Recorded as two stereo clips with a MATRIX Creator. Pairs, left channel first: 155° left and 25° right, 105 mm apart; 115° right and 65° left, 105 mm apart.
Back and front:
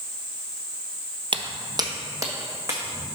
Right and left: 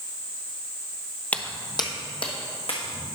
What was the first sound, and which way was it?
Footsteps, 40° right.